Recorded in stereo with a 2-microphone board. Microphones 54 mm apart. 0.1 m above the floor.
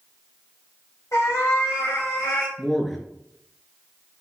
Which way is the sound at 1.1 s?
60° left (ahead or behind).